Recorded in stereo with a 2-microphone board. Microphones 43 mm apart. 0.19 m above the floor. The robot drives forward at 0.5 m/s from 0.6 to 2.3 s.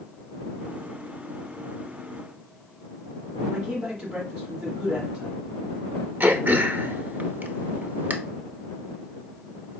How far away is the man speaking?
About 1.2 m.